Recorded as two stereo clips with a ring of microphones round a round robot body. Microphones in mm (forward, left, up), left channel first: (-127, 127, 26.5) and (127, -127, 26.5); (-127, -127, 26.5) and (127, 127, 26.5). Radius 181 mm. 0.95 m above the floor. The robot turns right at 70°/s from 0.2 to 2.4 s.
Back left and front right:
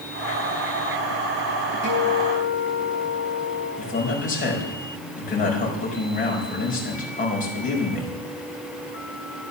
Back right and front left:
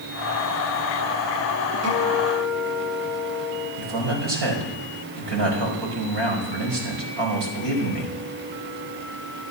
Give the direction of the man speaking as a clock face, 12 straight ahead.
10 o'clock.